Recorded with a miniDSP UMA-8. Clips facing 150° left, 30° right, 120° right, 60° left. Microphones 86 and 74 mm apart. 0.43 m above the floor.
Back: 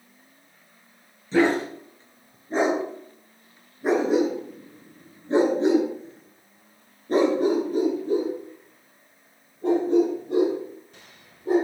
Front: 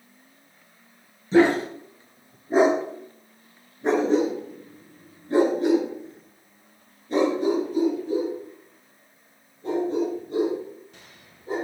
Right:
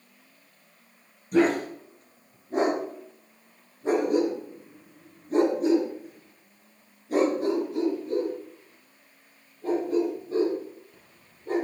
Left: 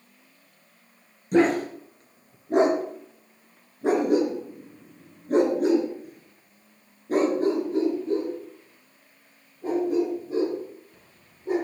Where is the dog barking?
40° left, 3.5 m; by 11.7 s 140° left, 4.5 m.